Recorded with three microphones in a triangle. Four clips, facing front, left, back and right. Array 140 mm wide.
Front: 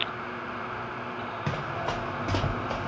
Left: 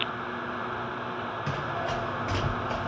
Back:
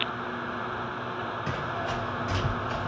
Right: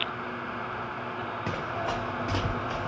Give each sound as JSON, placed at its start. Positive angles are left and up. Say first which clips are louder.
{"t": 1.5, "sound": "running footsteps", "louder": "even, front 2 dB", "azimuth_deg": -20, "distance_m": 1.0}